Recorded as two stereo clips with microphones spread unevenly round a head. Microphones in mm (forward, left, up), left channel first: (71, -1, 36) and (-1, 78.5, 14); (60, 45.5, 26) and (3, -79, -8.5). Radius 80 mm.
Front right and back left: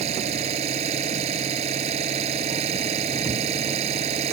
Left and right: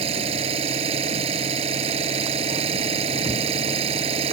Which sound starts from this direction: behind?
An engine running, at 0.0 s.